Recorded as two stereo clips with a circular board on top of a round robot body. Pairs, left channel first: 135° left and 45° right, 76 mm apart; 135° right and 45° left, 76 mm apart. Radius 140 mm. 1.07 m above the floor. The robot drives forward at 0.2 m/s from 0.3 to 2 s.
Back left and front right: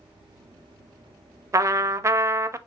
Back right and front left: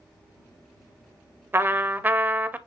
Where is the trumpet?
10° right, 0.5 m.